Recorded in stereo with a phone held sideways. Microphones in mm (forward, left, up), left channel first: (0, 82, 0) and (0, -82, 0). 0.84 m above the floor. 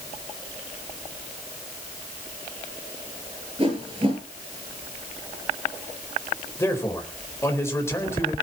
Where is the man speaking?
15° left (ahead or behind), 4 m.